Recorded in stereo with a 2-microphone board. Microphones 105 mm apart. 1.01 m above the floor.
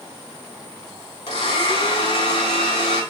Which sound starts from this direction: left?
A blender, at 1.3 s.